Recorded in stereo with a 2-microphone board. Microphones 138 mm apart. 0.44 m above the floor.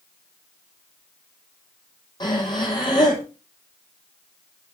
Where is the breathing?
30° left (ahead or behind), 3 m.